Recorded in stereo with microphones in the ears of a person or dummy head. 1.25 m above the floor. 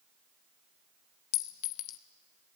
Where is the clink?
40° left (ahead or behind), 0.9 m.